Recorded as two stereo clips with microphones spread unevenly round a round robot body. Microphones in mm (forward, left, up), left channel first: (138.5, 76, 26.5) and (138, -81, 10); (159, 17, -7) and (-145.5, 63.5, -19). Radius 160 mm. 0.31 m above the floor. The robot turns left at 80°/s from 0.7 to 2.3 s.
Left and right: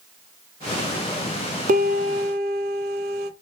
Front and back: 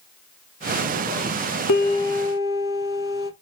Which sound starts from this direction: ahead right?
A piano, at 1.7 s.